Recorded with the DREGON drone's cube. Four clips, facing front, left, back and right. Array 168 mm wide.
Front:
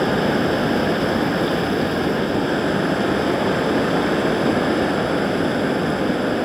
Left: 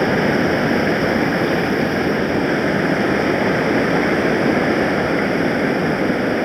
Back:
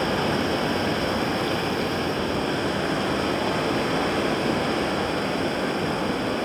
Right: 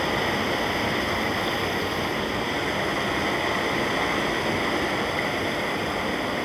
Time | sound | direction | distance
0.0 | running water | 65° left | 1.9 m